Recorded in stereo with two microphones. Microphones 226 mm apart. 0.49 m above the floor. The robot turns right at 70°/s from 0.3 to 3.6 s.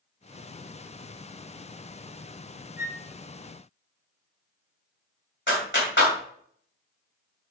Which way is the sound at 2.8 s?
10° right (ahead or behind).